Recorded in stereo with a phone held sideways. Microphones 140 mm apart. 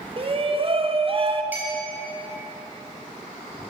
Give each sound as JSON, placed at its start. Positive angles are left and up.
{"t": 0.2, "sound": "a shout", "side_deg": -40, "distance_m": 0.6}
{"t": 1.5, "sound": "a clink", "side_deg": -15, "distance_m": 1.7}